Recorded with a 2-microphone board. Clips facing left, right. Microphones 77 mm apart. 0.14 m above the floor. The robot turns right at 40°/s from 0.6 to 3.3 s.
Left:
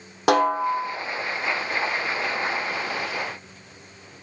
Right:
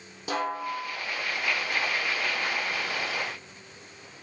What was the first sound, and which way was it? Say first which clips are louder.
A snare drum: left 11 dB; 85° left.